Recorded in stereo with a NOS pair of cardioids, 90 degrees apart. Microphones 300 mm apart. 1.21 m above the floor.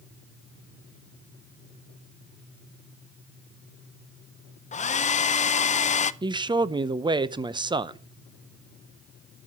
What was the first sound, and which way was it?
A hair dryer, 25° left.